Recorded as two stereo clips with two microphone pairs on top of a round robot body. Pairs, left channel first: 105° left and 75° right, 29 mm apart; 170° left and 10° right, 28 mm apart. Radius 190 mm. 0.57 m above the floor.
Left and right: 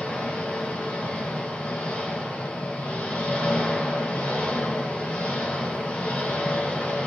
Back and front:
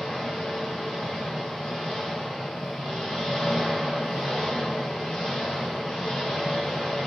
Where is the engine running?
135° left, 3 m.